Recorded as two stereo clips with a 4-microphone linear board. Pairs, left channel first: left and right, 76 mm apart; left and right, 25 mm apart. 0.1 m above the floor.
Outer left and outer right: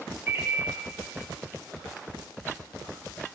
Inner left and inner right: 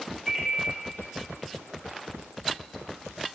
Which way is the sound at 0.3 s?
25° right (ahead or behind).